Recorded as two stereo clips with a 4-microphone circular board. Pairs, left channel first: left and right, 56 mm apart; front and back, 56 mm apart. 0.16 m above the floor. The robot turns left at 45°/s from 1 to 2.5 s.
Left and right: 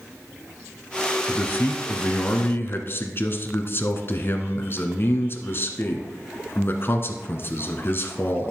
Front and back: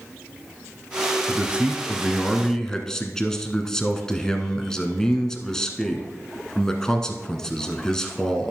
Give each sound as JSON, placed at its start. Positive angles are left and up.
{"t": 1.3, "sound": "a man speaking", "azimuth_deg": 130, "distance_m": 1.3}